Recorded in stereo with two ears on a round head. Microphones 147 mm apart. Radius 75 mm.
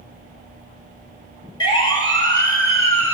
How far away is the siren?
About 4.5 m.